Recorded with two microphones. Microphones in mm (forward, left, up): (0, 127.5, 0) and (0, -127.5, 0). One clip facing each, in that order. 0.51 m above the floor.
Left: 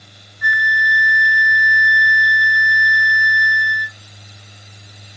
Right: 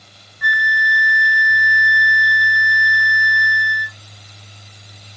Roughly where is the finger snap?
No finger snap in this recording.